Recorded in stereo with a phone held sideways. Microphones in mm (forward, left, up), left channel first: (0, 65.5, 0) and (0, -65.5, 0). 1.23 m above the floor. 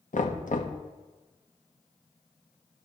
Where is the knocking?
75° left (ahead or behind), 1.1 m.